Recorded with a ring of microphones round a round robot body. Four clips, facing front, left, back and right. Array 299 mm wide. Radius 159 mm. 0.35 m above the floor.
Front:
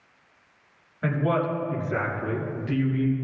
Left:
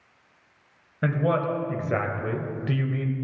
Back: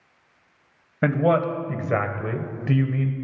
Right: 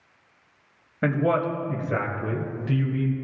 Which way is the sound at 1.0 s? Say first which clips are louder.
Right 2 dB, back 5 dB; 170° right.